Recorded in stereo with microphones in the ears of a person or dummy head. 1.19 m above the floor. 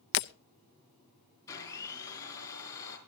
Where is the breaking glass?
60° left (ahead or behind), 0.6 m.